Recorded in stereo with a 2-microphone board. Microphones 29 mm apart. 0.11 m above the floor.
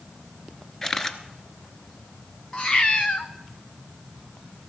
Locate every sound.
0.8 s a camera shutter: 20° left (ahead or behind), 1.0 m
2.5 s a cat meowing: 30° left (ahead or behind), 1.2 m